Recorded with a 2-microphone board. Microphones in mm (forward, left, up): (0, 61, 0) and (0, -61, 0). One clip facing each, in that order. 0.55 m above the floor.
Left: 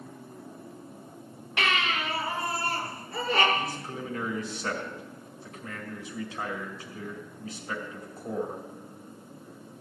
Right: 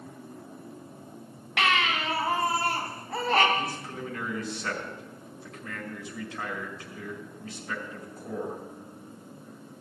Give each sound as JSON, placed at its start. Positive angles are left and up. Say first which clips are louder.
{"t": 1.6, "sound": "a baby crying", "louder": "right 2 dB", "side_deg": -80, "distance_m": 3.0}
{"t": 3.5, "sound": "a man speaking", "louder": "even", "side_deg": 10, "distance_m": 4.0}